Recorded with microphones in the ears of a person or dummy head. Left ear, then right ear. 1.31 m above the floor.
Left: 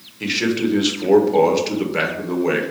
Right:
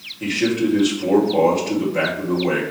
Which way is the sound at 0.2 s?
45° left (ahead or behind).